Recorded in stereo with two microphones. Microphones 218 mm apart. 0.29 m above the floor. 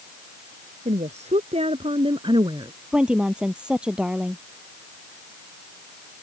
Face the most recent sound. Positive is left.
turn(degrees=-5)  # may be behind; listen again after turning